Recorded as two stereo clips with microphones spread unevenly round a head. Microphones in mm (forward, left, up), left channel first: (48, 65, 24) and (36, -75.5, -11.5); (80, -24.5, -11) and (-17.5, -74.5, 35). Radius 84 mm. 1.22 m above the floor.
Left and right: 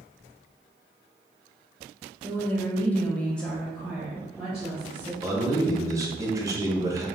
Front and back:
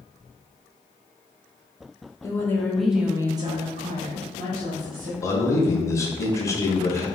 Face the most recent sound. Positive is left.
turn(degrees=-30)